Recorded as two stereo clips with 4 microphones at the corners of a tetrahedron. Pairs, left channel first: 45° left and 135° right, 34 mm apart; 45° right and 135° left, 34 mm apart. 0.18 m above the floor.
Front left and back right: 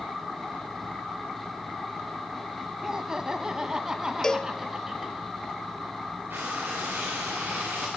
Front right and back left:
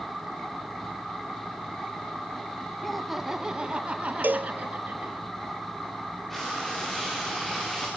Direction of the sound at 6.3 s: 130° right.